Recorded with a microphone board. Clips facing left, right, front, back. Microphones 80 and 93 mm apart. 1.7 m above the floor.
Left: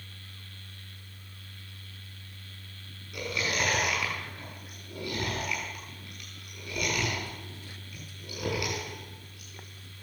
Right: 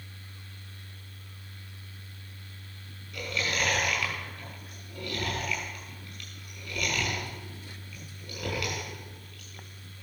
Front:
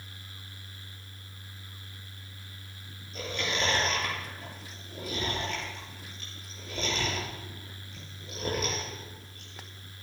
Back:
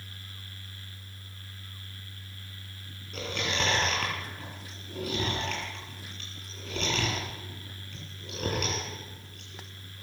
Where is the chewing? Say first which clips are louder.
Even, back 1 dB; 165° left, 6 m.